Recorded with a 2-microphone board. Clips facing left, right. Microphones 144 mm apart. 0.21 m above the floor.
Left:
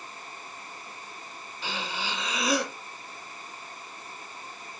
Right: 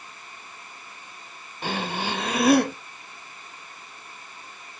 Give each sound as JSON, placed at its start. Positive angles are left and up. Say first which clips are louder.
{"t": 1.6, "sound": "breathing", "louder": "right 6 dB", "side_deg": -60, "distance_m": 0.5}